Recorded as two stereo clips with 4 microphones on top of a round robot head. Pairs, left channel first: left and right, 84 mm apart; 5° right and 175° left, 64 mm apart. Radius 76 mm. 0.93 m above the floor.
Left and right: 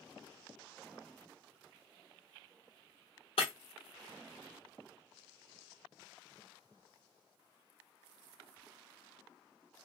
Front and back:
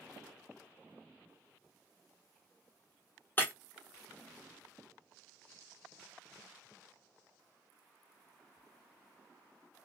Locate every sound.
3.4 s breaking glass: 50° left, 1.0 m